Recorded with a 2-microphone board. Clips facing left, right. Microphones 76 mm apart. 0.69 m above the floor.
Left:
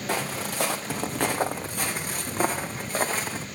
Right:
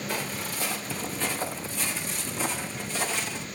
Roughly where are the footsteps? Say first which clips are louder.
Left 7 dB; left.